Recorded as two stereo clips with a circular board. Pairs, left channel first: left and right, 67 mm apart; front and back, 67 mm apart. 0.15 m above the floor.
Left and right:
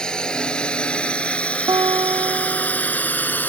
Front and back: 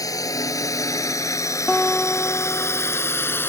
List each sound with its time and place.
0.0 s a drone: 15° left; by 3.5 s 40° left
1.7 s a guitar: 80° right